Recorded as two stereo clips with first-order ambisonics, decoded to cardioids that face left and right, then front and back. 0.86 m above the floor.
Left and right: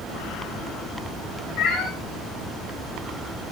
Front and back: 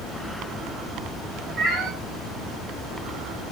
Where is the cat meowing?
135° left, 5 m.